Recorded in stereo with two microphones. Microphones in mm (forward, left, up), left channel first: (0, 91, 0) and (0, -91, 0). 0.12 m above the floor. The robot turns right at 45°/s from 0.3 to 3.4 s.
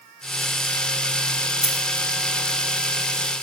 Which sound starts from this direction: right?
A dropped coin, at 1.6 s.